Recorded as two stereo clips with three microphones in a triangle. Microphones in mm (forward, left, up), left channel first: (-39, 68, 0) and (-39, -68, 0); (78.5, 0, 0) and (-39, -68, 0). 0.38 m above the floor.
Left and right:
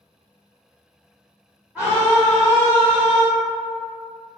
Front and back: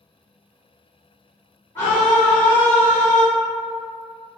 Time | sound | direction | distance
1.8 | a scream | 20° right | 1.0 m